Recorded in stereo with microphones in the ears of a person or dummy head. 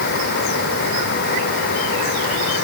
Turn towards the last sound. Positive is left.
No sound to turn to.